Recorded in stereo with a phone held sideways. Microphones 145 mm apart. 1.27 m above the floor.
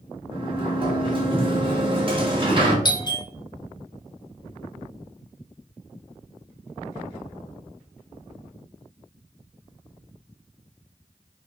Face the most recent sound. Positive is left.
turn(degrees=30)  # may be behind; listen again after turning